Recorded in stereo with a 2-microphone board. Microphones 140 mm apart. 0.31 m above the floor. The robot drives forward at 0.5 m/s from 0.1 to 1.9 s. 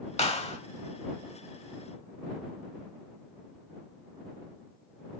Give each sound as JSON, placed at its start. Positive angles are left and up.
{"t": 0.2, "sound": "a clap", "side_deg": 50, "distance_m": 1.3}